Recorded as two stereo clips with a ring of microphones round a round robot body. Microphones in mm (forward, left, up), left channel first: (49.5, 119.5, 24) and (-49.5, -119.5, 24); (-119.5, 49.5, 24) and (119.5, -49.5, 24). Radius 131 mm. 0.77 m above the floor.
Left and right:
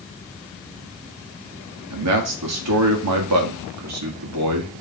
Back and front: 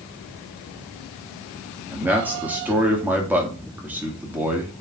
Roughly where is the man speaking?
Right.